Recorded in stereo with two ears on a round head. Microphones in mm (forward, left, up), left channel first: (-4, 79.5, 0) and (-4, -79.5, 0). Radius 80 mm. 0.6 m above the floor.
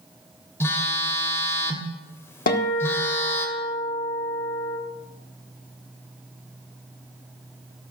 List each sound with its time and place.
0.6 s a phone buzzing: 15° left (ahead or behind), 1.9 m
2.5 s a guitar: 50° left (ahead or behind), 1.9 m